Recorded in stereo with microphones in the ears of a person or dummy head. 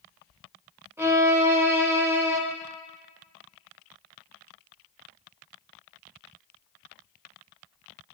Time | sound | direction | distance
1.0 | a violin | 15° right (ahead or behind) | 0.7 m